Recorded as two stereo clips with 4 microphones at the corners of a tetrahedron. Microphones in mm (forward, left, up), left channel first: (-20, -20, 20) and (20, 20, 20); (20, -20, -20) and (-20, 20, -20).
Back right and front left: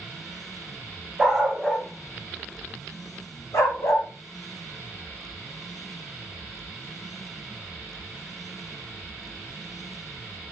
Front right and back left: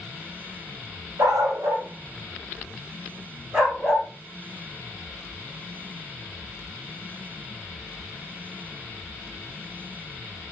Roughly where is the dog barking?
Behind left.